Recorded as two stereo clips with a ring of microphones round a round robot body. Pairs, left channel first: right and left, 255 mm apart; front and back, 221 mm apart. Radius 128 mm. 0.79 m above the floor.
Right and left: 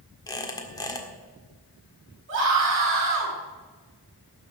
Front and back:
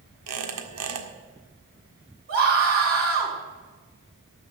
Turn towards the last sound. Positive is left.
turn(degrees=135)